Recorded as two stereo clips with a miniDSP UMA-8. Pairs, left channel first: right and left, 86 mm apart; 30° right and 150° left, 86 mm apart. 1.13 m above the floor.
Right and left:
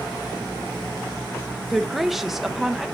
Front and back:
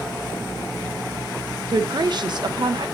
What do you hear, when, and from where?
1.7 s a woman speaking: 175° left, 0.8 m